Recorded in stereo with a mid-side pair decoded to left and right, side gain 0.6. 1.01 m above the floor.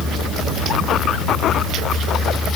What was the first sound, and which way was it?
Only background noise.